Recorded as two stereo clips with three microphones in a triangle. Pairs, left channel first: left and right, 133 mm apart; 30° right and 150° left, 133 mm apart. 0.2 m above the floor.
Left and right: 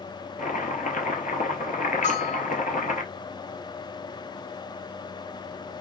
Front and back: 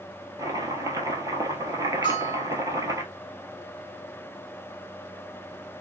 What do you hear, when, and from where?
0.4 s chopping: 90° left, 0.6 m
2.0 s a bell: 100° left, 2.5 m